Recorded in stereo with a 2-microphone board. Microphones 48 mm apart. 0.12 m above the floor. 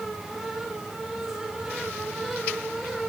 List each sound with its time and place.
Only background noise.